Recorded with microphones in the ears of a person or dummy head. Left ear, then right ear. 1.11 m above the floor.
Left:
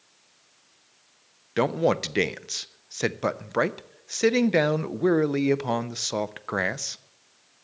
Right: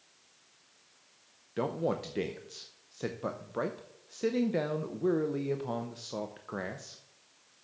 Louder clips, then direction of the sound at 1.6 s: Left 9 dB; 55° left (ahead or behind).